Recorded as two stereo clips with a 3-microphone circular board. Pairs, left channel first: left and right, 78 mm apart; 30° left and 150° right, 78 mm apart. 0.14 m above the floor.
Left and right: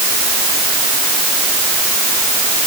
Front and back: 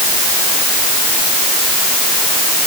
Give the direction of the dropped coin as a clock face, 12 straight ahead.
I don't hear a dropped coin.